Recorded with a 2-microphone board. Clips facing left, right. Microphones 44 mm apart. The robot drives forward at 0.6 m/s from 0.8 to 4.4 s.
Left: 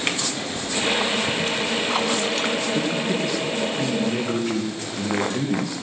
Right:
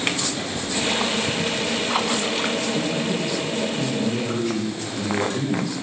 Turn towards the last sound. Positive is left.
turn(degrees=40)  # may be behind; listen again after turning